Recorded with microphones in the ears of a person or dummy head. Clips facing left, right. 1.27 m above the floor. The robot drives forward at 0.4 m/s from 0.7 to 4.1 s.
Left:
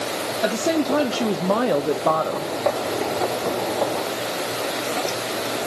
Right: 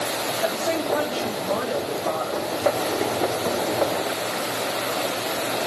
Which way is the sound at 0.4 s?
55° left (ahead or behind).